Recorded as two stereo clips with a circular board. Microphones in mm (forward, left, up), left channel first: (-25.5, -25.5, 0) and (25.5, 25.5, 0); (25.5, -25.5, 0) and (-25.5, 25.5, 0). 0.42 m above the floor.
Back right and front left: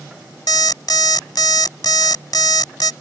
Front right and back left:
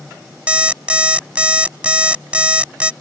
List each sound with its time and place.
0.5 s an alarm clock: 150° right